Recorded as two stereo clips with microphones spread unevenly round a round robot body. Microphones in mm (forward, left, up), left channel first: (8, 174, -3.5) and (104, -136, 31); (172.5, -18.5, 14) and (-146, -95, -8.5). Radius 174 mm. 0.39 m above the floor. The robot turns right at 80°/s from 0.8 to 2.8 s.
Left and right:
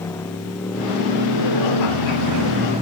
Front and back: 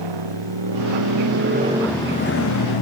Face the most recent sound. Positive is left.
turn(degrees=0)